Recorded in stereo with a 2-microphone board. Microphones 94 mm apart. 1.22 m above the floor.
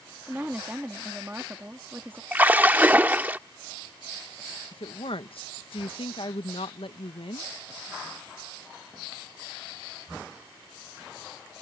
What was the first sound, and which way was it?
A woman speaking, 20° right (ahead or behind).